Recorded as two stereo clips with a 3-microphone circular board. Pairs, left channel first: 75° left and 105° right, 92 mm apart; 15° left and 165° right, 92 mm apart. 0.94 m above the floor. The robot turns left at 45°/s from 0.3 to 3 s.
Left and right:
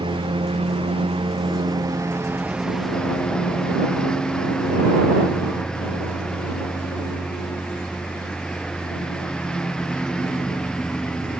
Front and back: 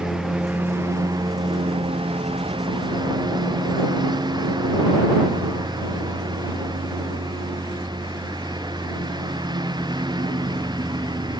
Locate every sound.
0.0 s a lawn mower: 80° right; by 11.4 s 160° left